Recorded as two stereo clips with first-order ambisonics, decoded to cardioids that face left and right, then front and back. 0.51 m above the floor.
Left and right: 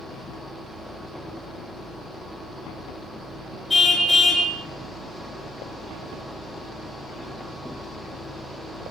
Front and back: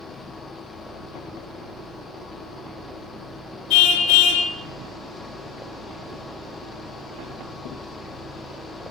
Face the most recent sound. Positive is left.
turn(degrees=10)